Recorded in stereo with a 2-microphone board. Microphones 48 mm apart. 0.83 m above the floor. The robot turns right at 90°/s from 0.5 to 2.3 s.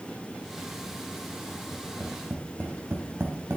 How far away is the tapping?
About 3 m.